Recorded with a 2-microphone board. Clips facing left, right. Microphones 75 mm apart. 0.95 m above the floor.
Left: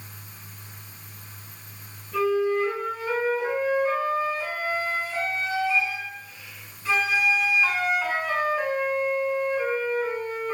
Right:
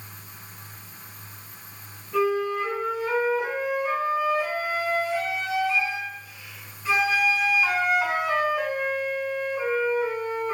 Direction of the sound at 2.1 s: 20° right (ahead or behind).